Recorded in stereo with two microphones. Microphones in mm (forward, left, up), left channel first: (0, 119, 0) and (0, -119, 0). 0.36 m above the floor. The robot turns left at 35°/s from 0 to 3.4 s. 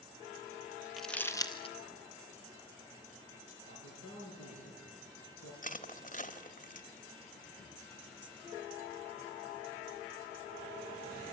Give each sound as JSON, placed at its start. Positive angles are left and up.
{"t": 1.0, "sound": "crumpling", "side_deg": 0, "distance_m": 1.4}
{"t": 3.6, "sound": "a man speaking", "side_deg": 70, "distance_m": 9.0}
{"t": 5.6, "sound": "crushing", "side_deg": 35, "distance_m": 1.2}